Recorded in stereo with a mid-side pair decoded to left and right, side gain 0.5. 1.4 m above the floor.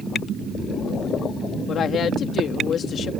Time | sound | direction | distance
1.7 | a woman speaking | 55° left | ?